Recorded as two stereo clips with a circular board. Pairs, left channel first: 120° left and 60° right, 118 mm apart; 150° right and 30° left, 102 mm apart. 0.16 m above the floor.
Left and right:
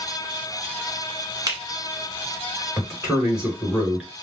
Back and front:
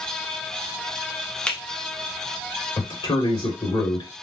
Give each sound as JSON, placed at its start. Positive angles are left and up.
{"t": 1.5, "sound": "a finger snap", "azimuth_deg": -80, "distance_m": 1.0}
{"t": 2.8, "sound": "a man speaking", "azimuth_deg": -140, "distance_m": 2.5}